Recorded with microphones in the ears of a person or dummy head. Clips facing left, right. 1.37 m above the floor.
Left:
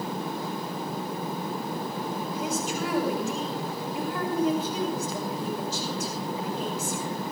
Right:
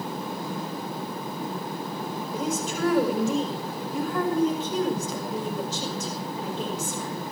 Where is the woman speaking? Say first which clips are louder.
Right 3 dB; 70° right (ahead or behind), 5.5 m.